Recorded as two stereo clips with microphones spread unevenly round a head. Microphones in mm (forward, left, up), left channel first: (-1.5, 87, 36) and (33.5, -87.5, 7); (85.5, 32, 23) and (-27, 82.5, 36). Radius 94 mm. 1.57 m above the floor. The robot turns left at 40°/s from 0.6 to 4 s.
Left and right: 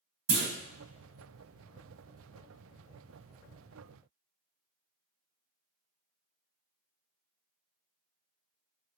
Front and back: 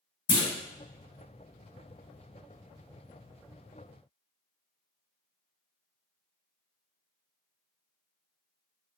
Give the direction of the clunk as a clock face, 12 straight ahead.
2 o'clock.